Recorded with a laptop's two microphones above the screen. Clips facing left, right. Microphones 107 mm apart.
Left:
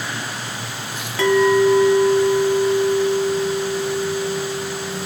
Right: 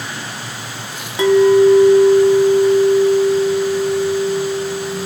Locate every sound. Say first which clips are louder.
1.2 s a clink: right 5 dB; 20° right (ahead or behind), 0.8 m